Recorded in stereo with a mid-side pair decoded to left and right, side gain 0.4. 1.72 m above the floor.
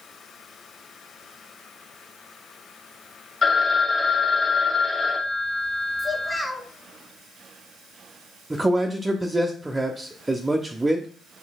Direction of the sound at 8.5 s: 20° right.